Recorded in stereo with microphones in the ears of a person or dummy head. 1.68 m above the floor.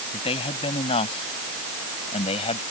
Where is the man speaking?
35° left (ahead or behind).